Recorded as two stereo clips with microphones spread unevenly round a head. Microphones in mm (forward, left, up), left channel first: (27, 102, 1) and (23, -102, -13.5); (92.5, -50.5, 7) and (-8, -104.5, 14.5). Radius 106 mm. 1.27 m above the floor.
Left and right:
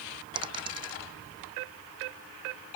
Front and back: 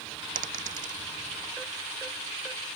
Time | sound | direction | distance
0.3 | a dropped coin | 160° right | ?